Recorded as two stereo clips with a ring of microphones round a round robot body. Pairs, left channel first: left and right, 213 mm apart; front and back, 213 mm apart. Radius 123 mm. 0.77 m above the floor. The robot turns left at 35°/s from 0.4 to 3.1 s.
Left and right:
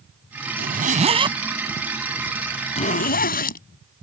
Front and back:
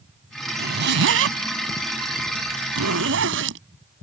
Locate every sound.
0.6 s a zipper: 135° right; by 3.6 s 135° left